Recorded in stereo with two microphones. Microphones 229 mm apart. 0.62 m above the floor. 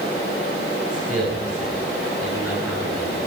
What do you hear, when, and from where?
0.9 s a man speaking: 85° right, 8 m; by 3.2 s 75° right (ahead or behind), 7 m